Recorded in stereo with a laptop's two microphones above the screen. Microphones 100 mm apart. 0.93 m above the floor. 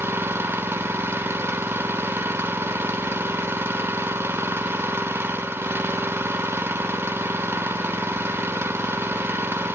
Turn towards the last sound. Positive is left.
turn(degrees=-25)  # may be behind; listen again after turning